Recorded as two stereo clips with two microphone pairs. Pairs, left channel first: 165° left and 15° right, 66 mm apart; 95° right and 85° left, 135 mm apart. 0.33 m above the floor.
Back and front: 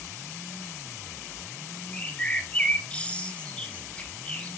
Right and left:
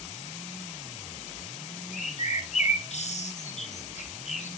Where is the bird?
125° right, 0.8 m.